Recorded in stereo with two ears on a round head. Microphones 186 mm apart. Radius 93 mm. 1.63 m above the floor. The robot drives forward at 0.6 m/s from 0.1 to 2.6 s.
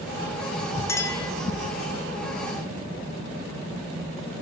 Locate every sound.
0.9 s a clink: 15° left (ahead or behind), 2.5 m